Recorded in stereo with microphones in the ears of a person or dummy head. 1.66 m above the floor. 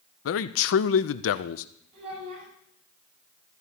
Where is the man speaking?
80° left, 0.6 m.